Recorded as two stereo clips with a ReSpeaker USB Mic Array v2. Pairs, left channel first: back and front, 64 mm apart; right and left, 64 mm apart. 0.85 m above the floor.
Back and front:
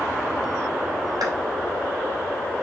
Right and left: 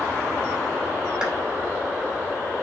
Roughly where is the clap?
Ahead.